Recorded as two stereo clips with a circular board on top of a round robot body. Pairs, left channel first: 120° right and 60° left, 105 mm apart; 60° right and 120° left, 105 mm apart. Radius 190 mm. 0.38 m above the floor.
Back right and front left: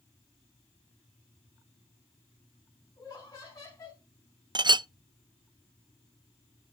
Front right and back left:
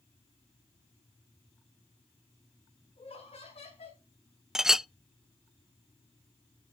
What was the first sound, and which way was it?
Laughter, 65° right.